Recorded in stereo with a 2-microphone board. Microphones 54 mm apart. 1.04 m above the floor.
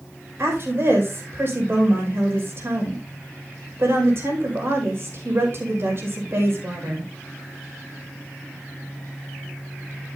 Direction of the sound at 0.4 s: 50° right (ahead or behind).